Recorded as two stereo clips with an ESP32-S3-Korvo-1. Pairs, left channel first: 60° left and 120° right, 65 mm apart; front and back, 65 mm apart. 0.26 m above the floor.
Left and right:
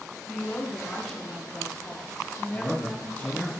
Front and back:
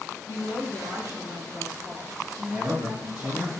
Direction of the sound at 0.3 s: 145° left.